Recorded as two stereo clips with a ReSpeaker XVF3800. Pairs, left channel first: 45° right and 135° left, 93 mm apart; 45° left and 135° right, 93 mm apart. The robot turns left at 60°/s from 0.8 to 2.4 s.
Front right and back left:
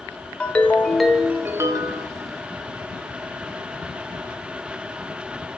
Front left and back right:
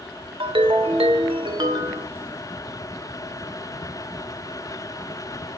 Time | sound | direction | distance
0.4 | a ringtone | 120° right | 0.6 m